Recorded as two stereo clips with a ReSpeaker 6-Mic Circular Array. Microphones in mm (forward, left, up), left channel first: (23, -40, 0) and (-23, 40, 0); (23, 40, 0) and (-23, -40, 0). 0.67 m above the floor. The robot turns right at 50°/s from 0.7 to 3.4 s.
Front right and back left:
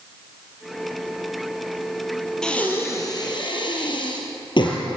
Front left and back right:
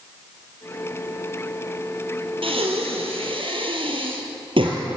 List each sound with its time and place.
2.4 s breathing: 145° right, 4.5 m; by 4.8 s 95° right, 4.5 m